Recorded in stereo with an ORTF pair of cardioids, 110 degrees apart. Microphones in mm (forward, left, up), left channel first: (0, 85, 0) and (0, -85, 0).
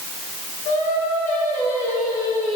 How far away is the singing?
About 8.5 m.